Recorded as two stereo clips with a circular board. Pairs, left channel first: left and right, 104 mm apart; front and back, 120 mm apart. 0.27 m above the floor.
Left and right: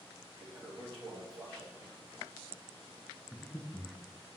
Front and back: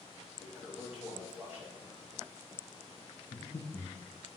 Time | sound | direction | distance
0.4 | a toilet flushing | 105° right | 2 m
3.3 | breathing | 10° left | 1.0 m